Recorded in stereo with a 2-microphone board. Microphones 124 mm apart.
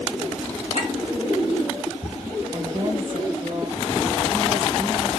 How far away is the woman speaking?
About 1.8 m.